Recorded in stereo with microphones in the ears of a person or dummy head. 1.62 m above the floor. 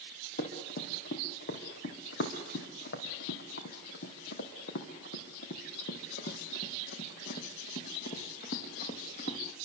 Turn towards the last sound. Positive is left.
turn(degrees=45)  # may be behind; listen again after turning